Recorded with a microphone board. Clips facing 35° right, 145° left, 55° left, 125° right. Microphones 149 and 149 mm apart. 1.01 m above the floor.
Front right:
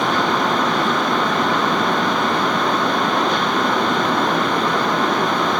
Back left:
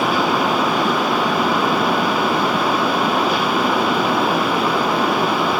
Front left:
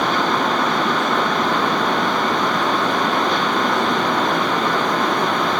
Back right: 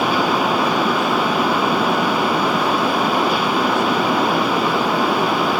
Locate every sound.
Only background noise.